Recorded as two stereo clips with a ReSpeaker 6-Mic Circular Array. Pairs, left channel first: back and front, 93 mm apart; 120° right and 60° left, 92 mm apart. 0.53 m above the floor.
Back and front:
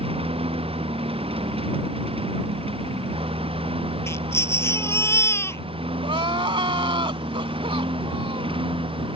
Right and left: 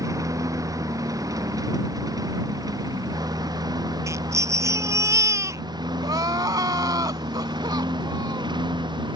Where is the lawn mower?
5° left; by 9.2 s 20° left.